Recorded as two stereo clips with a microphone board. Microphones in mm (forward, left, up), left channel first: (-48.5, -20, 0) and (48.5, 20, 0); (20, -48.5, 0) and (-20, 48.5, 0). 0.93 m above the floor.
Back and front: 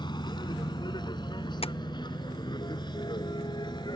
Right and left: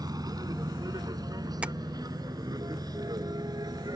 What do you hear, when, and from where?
0.0 s a vehicle: 160° left
1.6 s tapping: 170° right